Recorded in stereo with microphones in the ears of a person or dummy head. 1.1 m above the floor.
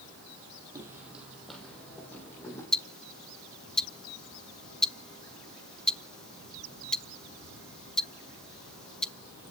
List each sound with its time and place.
0.8 s footsteps: 10° right (ahead or behind), 2 m; by 2.6 s 15° left (ahead or behind), 4 m
2.7 s ticking: centre (ahead or behind), 0.7 m